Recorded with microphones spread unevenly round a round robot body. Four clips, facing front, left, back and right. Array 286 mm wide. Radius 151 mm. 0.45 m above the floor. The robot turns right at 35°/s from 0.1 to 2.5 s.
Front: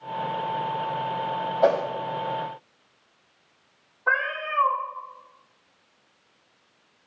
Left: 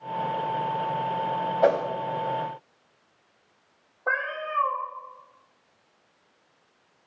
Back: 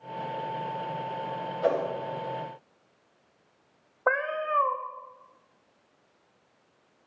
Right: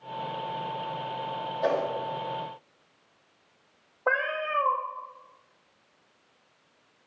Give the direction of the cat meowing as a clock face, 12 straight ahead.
5 o'clock.